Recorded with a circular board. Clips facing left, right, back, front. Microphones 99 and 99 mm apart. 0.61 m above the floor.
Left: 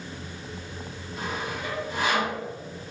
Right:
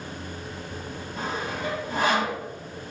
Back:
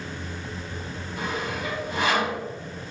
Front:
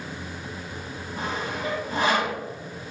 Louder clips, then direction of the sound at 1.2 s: Right 1 dB, even; 50° right.